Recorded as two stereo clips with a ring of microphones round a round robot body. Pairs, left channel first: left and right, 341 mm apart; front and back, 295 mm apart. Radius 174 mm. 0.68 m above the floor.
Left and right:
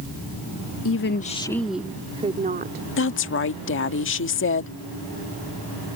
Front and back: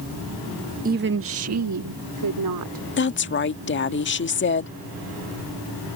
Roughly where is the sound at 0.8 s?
Behind left.